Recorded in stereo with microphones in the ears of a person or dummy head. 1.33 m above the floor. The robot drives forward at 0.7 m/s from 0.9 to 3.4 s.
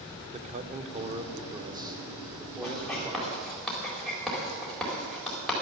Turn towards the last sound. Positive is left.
turn(degrees=0)  # may be behind; listen again after turning